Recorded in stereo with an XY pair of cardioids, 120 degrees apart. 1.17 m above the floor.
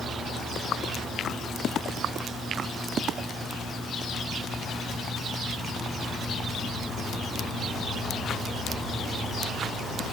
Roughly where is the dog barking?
I don't hear a dog barking.